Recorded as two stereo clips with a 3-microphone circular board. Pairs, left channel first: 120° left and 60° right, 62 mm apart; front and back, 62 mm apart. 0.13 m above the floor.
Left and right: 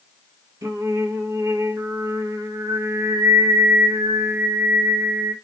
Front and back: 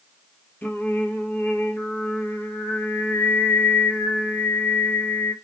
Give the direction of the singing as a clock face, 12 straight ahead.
2 o'clock.